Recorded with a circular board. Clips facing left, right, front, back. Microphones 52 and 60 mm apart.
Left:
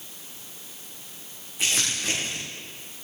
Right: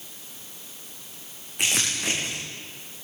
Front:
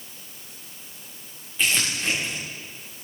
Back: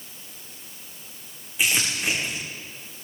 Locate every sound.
1.6 s crumpling: 100° right, 7.5 m